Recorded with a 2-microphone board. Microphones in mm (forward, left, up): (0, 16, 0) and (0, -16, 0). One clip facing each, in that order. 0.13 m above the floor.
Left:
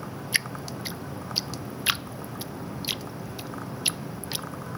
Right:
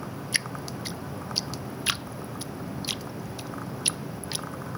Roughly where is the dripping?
Centre.